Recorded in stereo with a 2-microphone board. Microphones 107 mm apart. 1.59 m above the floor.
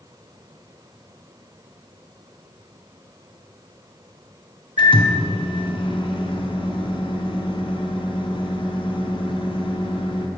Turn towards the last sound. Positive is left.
turn(degrees=50)  # may be behind; listen again after turning